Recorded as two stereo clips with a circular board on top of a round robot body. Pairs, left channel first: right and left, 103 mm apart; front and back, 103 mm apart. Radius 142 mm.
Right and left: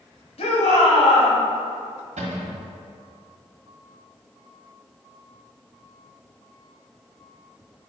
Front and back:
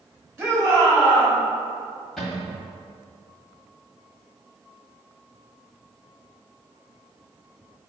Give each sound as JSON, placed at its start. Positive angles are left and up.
{"t": 0.4, "sound": "a shout", "azimuth_deg": -110, "distance_m": 2.0}
{"t": 2.2, "sound": "a cupboard door", "azimuth_deg": 90, "distance_m": 1.2}